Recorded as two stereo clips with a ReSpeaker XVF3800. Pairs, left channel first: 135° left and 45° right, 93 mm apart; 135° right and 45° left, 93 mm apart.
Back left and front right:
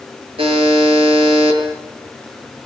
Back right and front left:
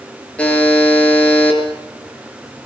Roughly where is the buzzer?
Ahead right.